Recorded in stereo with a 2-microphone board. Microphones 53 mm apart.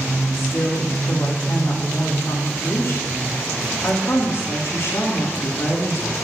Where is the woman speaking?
60° left (ahead or behind), 3 m.